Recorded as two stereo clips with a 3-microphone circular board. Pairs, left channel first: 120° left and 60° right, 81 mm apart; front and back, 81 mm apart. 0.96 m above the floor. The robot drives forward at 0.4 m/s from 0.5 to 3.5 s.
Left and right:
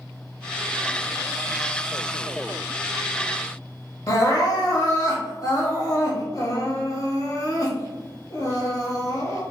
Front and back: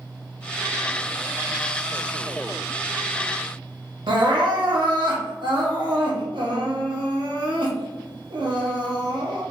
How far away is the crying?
About 0.8 m.